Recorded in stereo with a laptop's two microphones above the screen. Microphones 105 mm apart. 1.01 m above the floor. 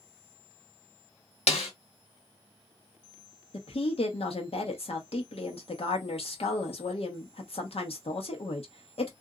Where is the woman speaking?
65° left (ahead or behind), 1.1 m.